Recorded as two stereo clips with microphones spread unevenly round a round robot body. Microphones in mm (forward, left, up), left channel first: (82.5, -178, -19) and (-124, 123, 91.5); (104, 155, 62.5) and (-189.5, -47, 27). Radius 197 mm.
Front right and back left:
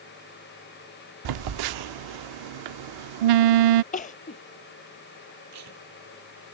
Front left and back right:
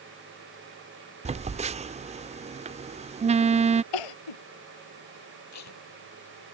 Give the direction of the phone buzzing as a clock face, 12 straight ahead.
7 o'clock.